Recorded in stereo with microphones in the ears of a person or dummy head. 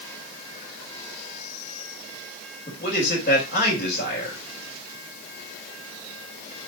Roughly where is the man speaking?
Left.